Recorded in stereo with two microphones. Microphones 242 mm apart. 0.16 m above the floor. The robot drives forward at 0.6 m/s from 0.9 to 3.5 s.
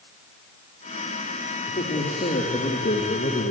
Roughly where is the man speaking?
Left.